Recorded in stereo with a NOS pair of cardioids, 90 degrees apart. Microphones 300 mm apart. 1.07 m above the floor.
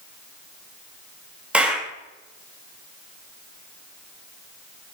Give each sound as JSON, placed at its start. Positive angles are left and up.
{"t": 1.5, "sound": "a clap", "azimuth_deg": -5, "distance_m": 0.9}